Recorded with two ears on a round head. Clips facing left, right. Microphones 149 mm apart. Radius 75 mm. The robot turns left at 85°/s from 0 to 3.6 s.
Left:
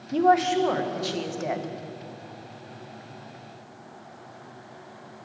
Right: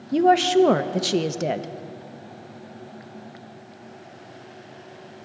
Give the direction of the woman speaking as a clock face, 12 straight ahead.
1 o'clock.